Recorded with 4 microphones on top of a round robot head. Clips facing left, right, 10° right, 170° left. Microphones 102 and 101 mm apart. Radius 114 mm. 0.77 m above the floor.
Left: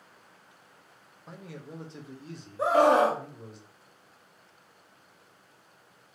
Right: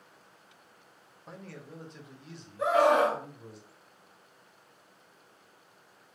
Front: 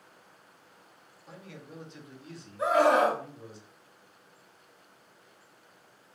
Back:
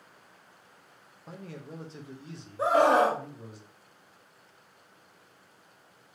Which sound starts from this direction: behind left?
A scream, at 2.6 s.